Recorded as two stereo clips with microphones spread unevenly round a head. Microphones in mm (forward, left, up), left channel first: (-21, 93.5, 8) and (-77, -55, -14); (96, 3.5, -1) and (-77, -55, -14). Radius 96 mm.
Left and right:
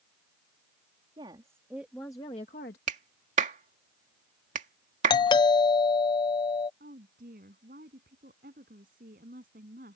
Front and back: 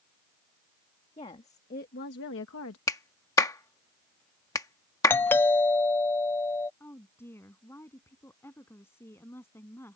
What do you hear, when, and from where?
1.2 s a woman speaking: 45° right; by 2.8 s 30° left
2.9 s a clap: 55° right
5.1 s a doorbell: 90° left
6.8 s a woman speaking: 60° right